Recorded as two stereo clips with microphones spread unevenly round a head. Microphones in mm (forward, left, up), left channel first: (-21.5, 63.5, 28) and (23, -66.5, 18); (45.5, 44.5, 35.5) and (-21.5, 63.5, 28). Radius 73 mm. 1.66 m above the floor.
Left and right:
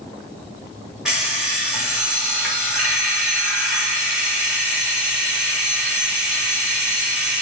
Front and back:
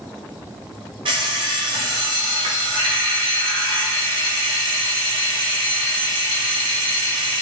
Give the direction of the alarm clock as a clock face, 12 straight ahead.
5 o'clock.